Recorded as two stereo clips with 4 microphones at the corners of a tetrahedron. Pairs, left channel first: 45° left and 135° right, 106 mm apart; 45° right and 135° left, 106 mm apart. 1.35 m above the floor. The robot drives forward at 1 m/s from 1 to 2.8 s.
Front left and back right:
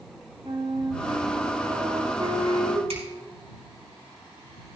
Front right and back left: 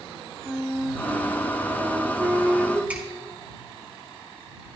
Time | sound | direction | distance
0.4 | a flute | 145° right | 2 m
2.9 | a finger snap | 150° right | 5 m